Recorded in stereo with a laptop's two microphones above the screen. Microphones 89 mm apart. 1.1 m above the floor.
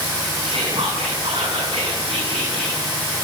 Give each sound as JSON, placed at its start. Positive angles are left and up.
{"t": 0.4, "sound": "whispering", "side_deg": -85, "distance_m": 8.5}